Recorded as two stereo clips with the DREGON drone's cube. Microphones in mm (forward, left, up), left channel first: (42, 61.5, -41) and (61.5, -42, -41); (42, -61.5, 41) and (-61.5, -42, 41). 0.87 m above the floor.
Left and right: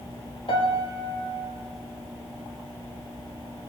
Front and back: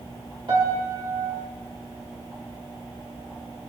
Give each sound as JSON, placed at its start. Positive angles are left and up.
{"t": 0.5, "sound": "a piano", "azimuth_deg": 130, "distance_m": 1.7}